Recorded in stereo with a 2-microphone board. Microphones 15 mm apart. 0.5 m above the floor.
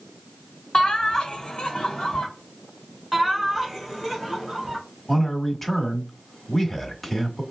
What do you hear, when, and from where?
0.7 s laughter: 60° left (ahead or behind), 1.2 m
3.1 s laughter: centre (ahead or behind), 2.0 m
5.1 s a man speaking: 15° left (ahead or behind), 1.3 m